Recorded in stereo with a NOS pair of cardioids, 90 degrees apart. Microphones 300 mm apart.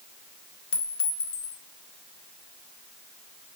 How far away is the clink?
About 1.9 m.